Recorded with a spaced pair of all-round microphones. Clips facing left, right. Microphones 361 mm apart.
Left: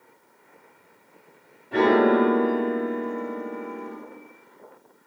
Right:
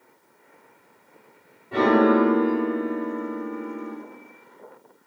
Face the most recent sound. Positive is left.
turn(degrees=-10)  # may be behind; listen again after turning